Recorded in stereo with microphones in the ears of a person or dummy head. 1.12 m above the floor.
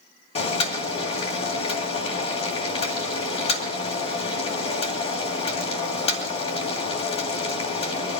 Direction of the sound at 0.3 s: 35° left (ahead or behind).